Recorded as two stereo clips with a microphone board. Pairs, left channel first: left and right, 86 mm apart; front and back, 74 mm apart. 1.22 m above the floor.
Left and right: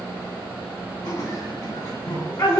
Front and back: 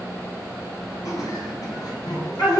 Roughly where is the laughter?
Ahead left.